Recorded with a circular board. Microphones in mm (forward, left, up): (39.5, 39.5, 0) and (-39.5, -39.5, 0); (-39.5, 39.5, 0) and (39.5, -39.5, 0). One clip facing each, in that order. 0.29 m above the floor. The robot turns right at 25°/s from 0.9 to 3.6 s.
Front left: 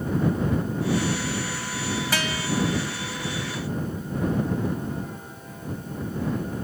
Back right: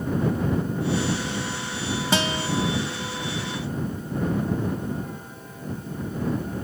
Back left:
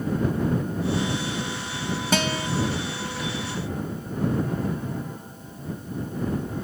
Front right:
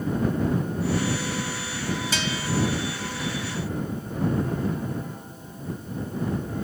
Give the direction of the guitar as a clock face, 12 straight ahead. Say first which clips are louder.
Back right 4 dB, back left 5 dB; 7 o'clock.